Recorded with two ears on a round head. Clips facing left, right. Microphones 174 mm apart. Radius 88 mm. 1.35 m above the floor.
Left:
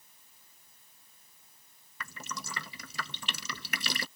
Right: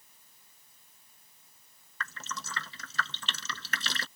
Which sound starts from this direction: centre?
Dripping, at 2.0 s.